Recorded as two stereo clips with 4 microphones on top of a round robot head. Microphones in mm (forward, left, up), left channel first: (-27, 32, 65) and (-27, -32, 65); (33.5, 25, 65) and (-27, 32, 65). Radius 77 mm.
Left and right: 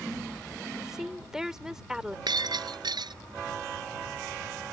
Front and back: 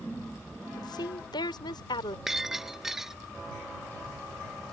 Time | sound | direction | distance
0.8 | a woman speaking | 5° right | ?
2.3 | breaking glass | 100° right | ?